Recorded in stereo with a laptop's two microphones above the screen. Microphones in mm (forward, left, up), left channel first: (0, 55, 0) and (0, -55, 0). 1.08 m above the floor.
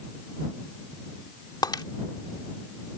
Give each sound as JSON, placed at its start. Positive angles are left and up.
{"t": 1.6, "sound": "breaking glass", "side_deg": 40}